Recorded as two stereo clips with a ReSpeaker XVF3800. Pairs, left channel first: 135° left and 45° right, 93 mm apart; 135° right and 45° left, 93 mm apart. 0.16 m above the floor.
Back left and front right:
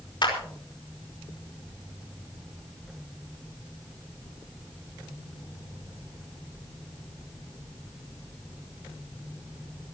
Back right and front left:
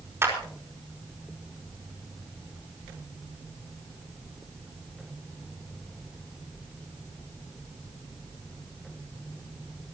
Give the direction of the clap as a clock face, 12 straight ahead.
9 o'clock.